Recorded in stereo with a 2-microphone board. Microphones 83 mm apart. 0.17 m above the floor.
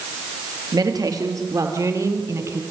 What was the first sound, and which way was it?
A woman speaking, 50° right (ahead or behind).